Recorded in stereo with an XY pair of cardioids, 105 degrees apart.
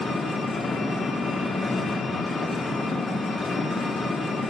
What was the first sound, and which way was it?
An engine running, 25° left.